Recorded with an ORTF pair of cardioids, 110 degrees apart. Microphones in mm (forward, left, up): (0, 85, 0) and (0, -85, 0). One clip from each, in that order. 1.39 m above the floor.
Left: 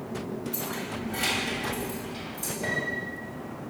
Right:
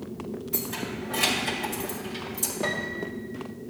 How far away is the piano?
About 1.8 m.